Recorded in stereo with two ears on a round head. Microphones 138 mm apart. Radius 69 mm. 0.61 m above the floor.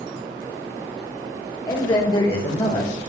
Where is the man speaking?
25° left (ahead or behind), 3 m; by 2.9 s 50° left (ahead or behind), 2 m.